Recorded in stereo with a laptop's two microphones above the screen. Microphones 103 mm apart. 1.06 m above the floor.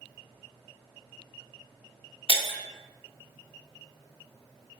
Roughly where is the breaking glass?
Left.